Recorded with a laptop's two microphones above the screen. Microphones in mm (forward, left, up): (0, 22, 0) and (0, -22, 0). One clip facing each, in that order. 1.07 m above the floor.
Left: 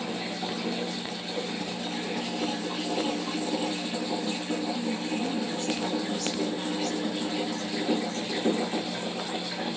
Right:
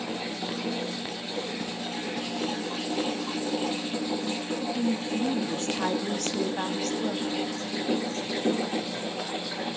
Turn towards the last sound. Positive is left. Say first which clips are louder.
# right 2 dB
turn(degrees=-45)  # may be behind; listen again after turning